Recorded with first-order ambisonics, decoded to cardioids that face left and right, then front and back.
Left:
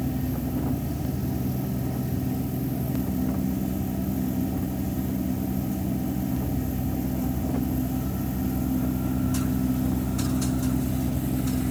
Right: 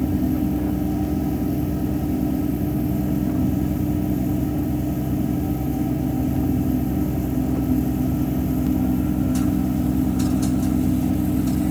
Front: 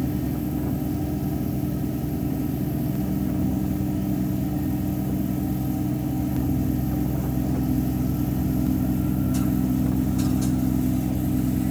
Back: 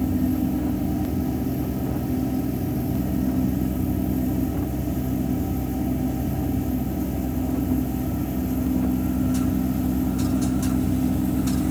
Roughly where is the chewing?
I don't hear chewing.